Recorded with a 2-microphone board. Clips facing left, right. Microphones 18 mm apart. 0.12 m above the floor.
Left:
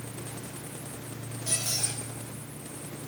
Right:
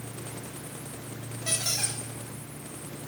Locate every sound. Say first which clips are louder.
1.5 s a squeak: right 2 dB; 80° right, 9 m